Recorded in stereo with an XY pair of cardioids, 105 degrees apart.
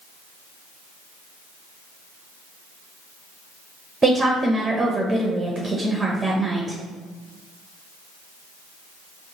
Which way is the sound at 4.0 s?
20° right.